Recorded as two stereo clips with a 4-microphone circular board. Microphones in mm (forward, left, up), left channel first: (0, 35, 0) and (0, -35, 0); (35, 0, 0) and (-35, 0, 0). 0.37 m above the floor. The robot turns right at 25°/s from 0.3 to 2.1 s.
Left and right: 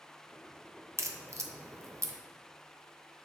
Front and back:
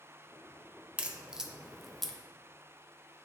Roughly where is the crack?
Behind right.